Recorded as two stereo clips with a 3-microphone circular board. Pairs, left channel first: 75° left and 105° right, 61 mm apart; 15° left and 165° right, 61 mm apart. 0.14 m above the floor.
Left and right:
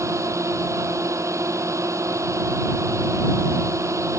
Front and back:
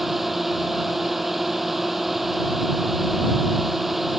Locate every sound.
0.0 s a drone: 80° right